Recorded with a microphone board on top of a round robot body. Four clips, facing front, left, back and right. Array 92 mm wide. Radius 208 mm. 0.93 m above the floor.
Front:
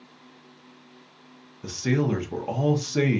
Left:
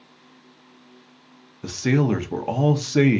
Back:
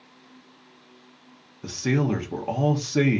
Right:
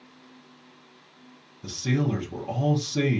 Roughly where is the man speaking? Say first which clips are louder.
Left 6 dB, even; left.